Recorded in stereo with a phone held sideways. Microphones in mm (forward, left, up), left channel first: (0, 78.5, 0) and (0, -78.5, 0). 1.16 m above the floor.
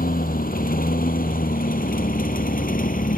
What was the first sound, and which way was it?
A lawn mower, 65° left (ahead or behind).